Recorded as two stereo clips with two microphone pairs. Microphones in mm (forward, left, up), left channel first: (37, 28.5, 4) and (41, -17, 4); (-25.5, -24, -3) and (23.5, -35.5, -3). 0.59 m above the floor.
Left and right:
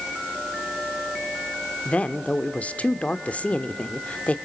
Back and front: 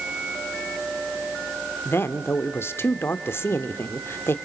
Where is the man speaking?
145° left, 1.4 m.